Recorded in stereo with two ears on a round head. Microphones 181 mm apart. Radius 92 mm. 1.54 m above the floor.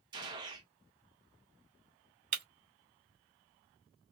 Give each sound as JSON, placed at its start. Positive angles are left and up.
{"t": 0.1, "sound": "a gunshot", "side_deg": -25, "distance_m": 1.2}
{"t": 2.3, "sound": "breaking glass", "side_deg": -45, "distance_m": 2.0}